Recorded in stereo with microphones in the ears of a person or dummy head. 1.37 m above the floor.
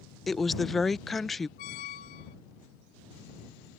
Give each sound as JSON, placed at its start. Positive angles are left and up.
{"t": 0.3, "sound": "a woman speaking", "side_deg": 0}
{"t": 1.6, "sound": "a squeak", "side_deg": 25}